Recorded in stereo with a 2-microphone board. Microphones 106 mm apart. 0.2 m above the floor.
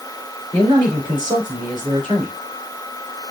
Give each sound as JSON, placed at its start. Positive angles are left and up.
{"t": 0.5, "sound": "a man speaking", "side_deg": -45, "distance_m": 2.5}